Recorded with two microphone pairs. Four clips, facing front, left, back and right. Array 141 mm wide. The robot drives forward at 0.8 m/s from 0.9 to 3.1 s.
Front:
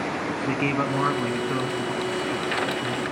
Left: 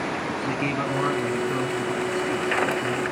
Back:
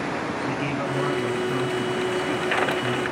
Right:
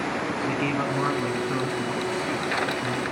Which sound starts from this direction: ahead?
A man speaking, at 0.5 s.